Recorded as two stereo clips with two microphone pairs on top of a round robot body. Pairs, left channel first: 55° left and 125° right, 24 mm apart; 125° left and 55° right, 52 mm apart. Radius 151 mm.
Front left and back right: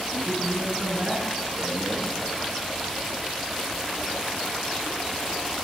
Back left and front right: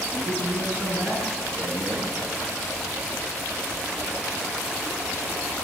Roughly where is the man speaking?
Behind right.